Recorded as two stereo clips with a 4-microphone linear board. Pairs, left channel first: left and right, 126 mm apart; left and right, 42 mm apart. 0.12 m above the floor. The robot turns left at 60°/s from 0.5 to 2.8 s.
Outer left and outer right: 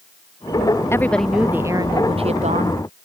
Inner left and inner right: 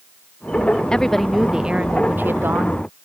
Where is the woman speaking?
20° left; by 2.8 s 90° right.